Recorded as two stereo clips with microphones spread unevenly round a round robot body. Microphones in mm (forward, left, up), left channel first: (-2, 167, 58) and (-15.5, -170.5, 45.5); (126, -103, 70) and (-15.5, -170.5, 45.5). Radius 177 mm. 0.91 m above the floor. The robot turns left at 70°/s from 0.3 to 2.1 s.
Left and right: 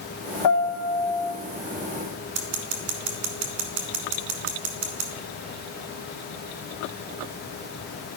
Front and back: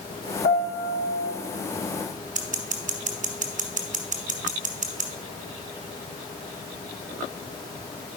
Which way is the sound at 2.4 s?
125° right.